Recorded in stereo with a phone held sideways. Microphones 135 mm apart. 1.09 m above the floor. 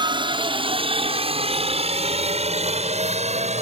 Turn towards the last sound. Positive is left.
turn(degrees=-60)  # may be behind; listen again after turning